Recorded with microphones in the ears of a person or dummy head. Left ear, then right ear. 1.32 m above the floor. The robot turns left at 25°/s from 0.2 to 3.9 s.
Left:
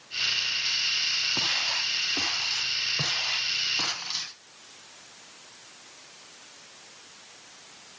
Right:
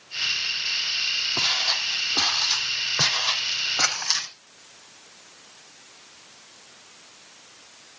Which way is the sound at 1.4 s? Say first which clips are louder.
Right 3 dB; 15° right (ahead or behind).